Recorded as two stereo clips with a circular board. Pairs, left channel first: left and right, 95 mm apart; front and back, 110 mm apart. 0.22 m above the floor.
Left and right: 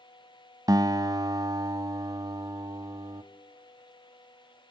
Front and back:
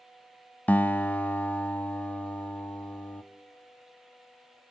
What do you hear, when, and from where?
0.7 s a guitar: 70° right, 0.7 m